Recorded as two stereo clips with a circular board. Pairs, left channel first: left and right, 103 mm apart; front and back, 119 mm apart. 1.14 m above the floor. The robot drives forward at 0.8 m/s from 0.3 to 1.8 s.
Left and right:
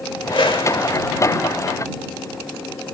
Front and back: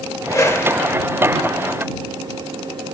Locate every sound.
0.3 s a whoosh: 60° left, 2 m; by 1.0 s 75° left, 1.8 m